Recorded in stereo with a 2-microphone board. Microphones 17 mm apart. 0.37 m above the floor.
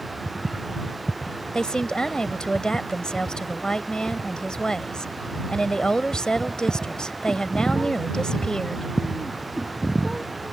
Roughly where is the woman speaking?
Left.